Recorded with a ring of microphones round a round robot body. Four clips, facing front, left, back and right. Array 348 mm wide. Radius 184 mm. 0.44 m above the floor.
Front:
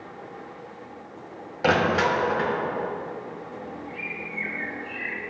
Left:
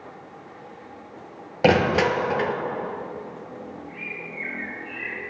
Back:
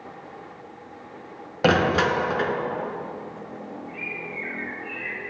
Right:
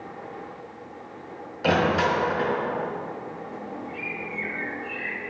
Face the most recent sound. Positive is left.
turn(degrees=-65)